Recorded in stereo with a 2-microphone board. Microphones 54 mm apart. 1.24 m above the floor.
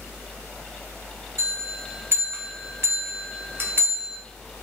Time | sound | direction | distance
1.4 | a bell | 45° right (ahead or behind) | 0.9 m